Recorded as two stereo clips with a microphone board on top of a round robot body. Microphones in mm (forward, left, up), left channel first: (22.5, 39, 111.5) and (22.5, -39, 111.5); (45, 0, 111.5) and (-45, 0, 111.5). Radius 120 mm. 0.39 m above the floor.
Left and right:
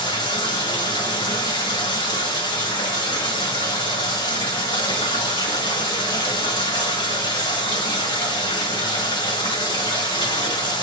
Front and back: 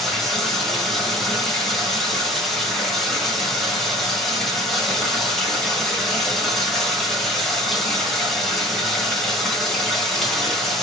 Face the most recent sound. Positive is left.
turn(degrees=85)